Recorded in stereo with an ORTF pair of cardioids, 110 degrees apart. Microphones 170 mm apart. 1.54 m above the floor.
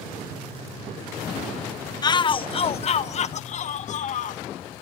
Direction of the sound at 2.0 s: 25° left.